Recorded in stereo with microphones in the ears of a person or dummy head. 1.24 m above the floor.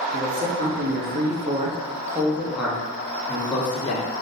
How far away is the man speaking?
About 1.0 m.